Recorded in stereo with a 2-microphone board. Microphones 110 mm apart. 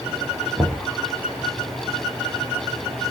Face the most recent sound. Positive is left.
turn(degrees=-25)  # may be behind; listen again after turning